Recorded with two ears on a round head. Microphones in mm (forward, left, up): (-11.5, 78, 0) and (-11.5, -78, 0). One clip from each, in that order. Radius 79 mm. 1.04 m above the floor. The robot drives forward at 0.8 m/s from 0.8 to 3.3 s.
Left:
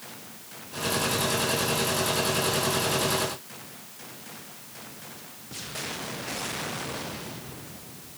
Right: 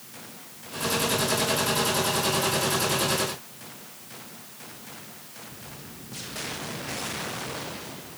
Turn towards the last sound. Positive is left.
No sound to turn to.